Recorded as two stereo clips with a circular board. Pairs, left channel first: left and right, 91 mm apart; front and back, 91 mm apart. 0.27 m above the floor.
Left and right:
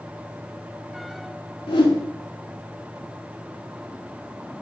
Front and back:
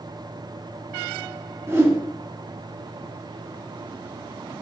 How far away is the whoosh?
About 0.5 m.